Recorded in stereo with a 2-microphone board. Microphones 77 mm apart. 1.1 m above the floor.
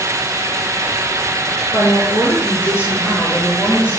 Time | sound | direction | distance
1.7 | a woman speaking | 45° left (ahead or behind) | 4 m